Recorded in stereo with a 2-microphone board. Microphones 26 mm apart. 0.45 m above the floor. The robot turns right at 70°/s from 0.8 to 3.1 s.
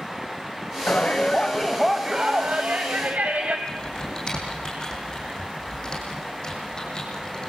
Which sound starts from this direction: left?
Typing on a keyboard, at 3.7 s.